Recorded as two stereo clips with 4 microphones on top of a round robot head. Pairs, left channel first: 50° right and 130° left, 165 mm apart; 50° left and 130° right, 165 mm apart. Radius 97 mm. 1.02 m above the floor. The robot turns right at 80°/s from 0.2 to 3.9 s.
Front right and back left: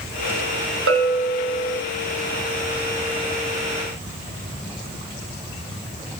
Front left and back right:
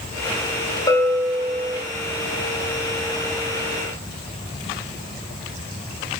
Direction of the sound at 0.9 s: 120° left.